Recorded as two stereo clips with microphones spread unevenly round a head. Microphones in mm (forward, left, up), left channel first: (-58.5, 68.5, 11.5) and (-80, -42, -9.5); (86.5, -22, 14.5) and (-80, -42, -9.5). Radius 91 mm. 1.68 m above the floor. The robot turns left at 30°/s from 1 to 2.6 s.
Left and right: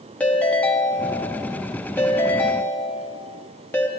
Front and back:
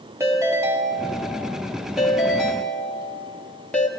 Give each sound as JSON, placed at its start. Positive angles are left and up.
{"t": 0.2, "sound": "a ringtone", "azimuth_deg": 115, "distance_m": 1.2}